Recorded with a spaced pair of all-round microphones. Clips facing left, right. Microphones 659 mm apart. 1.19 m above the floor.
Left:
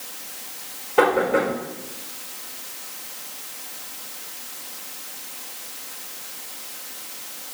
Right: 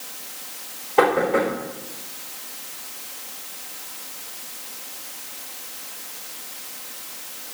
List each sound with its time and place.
1.0 s knocking: 40° left (ahead or behind), 5 m